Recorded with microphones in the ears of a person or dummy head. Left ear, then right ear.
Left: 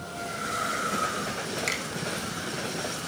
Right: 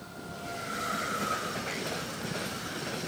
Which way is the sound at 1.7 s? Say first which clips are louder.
Left 6 dB; 60° left (ahead or behind).